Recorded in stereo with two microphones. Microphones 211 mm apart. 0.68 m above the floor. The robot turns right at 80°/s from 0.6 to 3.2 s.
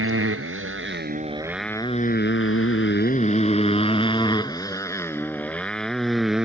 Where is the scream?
No scream in this recording.